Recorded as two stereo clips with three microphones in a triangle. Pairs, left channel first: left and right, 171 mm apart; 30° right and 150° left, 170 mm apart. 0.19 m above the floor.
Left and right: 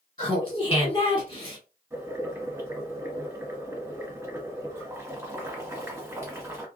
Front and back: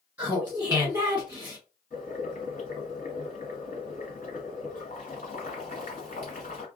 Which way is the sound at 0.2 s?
85° left.